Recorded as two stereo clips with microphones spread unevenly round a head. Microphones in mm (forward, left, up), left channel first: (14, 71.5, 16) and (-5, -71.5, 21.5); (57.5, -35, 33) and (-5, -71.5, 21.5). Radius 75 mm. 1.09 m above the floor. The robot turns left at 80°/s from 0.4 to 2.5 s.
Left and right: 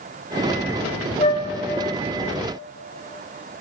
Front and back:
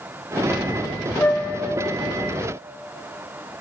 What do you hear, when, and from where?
1.2 s a flute: 75° left, 1.0 m; by 1.5 s 50° left, 1.0 m